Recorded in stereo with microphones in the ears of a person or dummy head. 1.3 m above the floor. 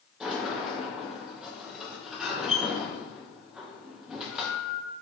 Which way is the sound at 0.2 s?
Centre (ahead or behind).